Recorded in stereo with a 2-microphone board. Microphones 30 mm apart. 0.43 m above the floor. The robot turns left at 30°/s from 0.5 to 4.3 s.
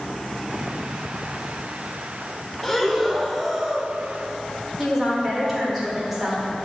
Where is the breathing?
20° left, 0.6 m; by 3.9 s 20° right, 0.6 m.